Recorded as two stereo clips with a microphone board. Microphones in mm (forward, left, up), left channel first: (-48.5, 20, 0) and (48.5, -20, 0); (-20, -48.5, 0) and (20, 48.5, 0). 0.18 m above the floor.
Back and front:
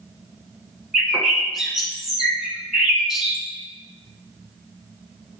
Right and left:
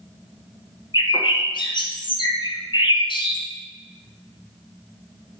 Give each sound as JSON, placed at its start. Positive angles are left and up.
{"t": 0.9, "sound": "a bird", "azimuth_deg": -110, "distance_m": 1.5}